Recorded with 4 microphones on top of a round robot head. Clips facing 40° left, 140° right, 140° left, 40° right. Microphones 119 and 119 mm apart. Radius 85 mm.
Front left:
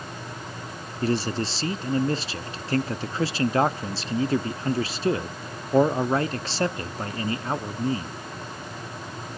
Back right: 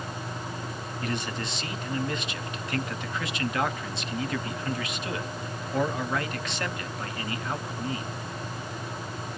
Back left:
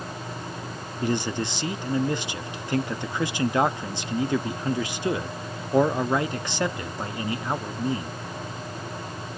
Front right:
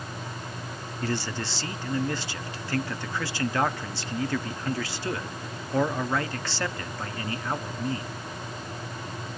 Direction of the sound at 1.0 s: 80° left.